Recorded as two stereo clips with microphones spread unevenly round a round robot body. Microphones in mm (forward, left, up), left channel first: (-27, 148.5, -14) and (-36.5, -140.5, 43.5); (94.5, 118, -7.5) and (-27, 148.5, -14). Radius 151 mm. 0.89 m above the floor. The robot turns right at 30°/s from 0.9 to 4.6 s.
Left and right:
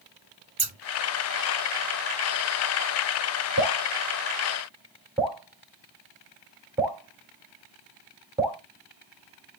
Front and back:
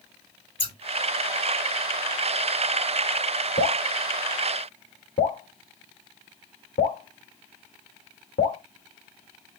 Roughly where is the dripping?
Ahead right.